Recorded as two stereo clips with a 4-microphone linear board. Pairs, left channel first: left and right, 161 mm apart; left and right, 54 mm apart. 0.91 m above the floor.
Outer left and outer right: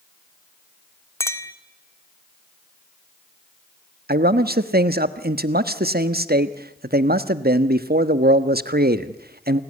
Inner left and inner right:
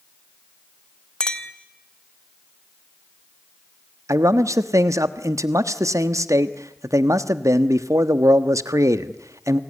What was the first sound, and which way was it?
A clink, 15° left (ahead or behind).